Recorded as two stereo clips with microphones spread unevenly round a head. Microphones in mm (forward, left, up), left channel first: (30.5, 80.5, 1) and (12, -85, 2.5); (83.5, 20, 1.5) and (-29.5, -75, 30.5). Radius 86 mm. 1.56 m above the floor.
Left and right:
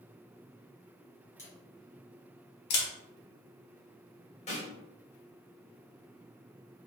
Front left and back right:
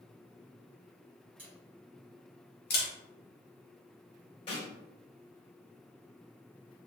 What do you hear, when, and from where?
1.4 s a camera shutter: 155° left, 1.1 m
2.7 s a camera shutter: 80° left, 0.7 m
4.5 s a snare drum: 95° left, 1.0 m